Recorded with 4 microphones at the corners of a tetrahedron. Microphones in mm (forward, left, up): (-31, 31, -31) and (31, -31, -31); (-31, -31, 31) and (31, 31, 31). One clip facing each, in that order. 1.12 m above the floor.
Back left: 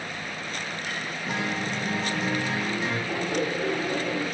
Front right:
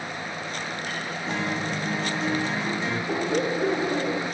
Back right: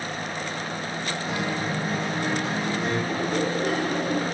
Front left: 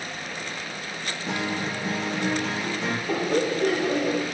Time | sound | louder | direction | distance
1.3 | a guitar | front right 1 dB, front left 1 dB | 55° left | 1.5 m
3.1 | laughter | front right 5 dB, front left 1 dB | 25° left | 1.5 m